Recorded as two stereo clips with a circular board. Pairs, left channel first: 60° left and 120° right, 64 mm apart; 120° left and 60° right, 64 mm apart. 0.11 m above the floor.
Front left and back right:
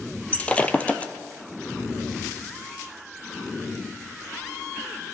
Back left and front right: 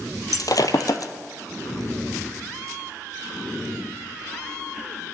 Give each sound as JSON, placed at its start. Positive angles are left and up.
{"t": 0.3, "sound": "breaking glass", "azimuth_deg": 130, "distance_m": 0.8}